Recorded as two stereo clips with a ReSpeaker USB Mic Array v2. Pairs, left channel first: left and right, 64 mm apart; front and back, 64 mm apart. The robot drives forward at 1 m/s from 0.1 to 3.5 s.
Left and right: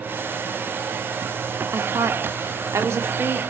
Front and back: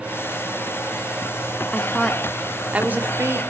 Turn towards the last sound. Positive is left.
turn(degrees=-140)